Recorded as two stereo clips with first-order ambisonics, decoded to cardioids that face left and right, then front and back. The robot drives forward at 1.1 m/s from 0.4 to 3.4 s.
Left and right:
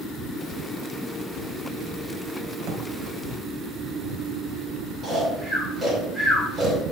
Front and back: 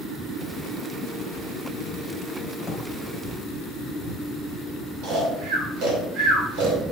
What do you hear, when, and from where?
2.6 s a drawer: 75° right, 2.5 m; by 2.9 s 85° right, 2.5 m
5.0 s snoring: 160° right, 3 m